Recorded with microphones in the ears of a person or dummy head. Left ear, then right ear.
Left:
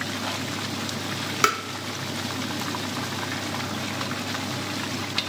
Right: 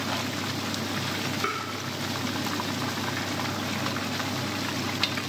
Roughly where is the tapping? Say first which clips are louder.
Left 10 dB; left.